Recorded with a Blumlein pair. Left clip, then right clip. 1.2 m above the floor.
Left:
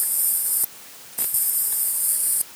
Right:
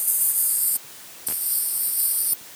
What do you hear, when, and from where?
Only background noise.